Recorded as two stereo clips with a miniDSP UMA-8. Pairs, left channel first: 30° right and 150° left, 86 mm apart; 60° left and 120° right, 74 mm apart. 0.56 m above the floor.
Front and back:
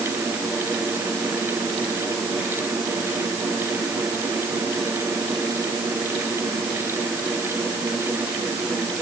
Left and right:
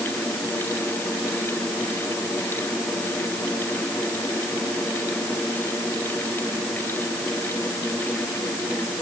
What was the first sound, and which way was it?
Only background noise.